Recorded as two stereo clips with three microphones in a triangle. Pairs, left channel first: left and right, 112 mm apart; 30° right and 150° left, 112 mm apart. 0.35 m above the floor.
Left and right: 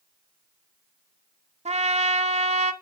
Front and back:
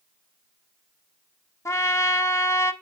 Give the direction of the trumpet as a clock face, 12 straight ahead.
3 o'clock.